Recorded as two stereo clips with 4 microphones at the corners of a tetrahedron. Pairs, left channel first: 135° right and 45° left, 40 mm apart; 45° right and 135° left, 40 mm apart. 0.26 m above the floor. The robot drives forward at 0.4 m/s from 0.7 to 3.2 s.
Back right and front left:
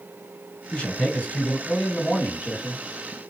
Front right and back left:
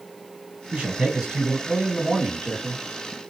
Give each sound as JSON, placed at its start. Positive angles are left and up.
{"t": 0.7, "sound": "a man speaking", "azimuth_deg": -175, "distance_m": 2.0}